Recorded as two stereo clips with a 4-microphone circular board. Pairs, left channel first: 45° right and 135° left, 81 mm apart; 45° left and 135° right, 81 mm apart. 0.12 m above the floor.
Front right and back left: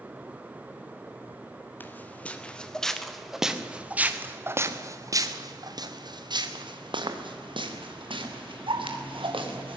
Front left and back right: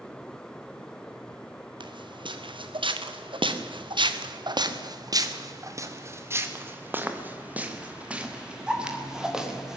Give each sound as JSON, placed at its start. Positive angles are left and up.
{"t": 1.8, "sound": "footsteps", "azimuth_deg": -115, "distance_m": 2.5}